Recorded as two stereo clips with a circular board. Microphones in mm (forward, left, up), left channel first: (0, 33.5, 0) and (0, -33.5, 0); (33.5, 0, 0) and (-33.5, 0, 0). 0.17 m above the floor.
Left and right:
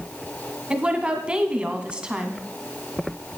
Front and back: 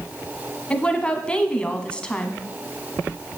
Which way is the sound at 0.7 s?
45° right.